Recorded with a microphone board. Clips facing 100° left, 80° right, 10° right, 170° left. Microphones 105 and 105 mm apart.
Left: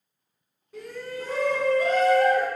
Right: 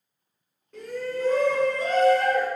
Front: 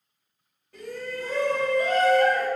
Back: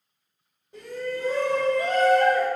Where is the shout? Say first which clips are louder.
Right 4 dB, back 3 dB; 170° left, 1.3 m.